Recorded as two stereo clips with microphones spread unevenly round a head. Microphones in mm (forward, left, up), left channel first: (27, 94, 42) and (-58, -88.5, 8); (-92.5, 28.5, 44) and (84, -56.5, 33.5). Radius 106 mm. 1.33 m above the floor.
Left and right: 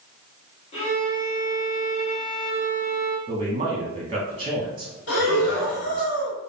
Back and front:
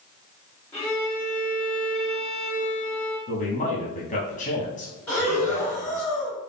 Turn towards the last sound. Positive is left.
turn(degrees=70)